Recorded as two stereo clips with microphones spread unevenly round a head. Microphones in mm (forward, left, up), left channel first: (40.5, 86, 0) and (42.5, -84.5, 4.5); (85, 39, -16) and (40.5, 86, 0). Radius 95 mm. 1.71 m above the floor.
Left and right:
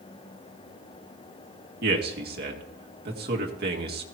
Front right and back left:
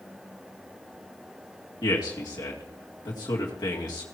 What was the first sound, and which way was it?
A man speaking, 70° right.